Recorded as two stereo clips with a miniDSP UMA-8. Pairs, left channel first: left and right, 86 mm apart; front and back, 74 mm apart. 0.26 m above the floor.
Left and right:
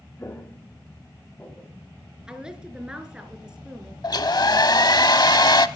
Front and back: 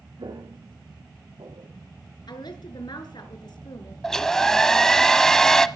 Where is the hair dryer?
80° left, 0.7 m.